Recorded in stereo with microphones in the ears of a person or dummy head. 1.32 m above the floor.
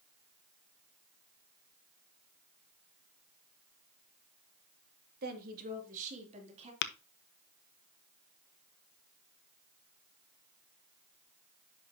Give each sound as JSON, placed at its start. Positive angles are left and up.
{"t": 5.2, "sound": "a woman speaking", "side_deg": -50, "distance_m": 2.0}
{"t": 6.8, "sound": "tapping", "side_deg": 65, "distance_m": 0.9}